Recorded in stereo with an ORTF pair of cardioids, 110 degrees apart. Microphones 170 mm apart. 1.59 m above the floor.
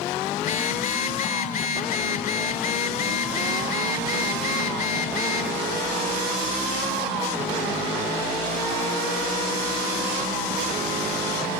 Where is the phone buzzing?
55° left, 4.5 m.